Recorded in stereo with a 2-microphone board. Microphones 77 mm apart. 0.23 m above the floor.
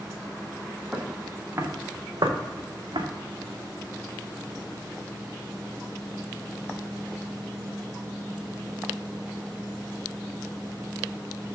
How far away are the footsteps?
About 2.5 m.